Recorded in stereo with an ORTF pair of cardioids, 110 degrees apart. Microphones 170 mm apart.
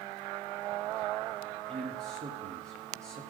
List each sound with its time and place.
1.7 s a man speaking: 40° right, 1.4 m